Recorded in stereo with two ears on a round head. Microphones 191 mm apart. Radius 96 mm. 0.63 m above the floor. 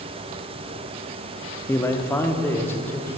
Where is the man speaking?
10° left (ahead or behind), 0.7 m.